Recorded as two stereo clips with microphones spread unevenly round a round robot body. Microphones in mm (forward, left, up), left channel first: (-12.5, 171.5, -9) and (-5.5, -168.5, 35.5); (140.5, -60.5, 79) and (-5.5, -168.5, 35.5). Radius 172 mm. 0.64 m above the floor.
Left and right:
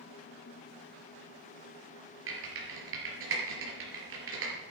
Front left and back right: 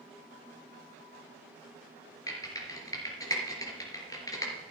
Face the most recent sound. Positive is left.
turn(degrees=-35)